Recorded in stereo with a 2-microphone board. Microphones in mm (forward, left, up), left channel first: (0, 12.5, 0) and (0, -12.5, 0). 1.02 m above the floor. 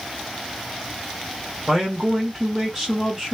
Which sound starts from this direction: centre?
A man speaking, at 1.7 s.